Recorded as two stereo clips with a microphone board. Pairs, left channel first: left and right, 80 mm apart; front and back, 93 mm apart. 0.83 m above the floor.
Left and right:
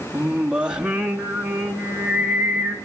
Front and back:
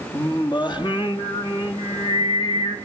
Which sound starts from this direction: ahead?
Singing, at 0.1 s.